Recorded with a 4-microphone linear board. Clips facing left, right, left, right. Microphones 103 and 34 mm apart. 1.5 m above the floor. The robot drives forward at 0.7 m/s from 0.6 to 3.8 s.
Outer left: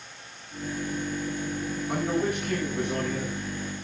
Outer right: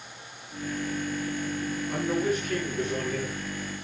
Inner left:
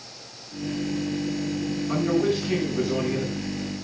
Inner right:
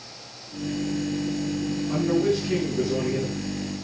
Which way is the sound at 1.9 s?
60° left (ahead or behind).